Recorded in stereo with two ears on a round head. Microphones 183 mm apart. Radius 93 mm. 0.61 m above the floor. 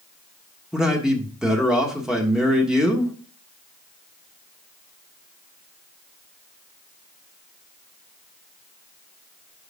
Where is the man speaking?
5° right (ahead or behind), 1.4 m.